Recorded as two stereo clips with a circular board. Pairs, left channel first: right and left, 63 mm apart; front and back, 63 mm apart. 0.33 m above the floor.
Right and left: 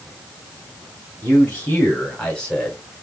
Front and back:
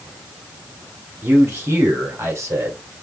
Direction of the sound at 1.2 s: 140° right.